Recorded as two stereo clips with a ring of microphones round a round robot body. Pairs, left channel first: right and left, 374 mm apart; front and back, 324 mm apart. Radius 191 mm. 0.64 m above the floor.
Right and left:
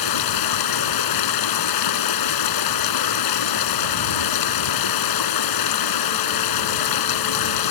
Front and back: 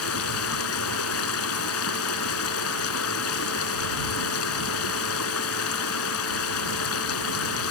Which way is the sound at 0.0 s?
55° right.